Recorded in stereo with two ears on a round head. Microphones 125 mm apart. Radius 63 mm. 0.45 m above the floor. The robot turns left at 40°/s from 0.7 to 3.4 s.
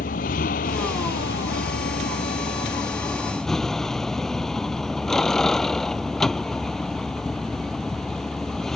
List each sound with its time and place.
0.0 s a vehicle: 110° left; by 8.8 s 5° left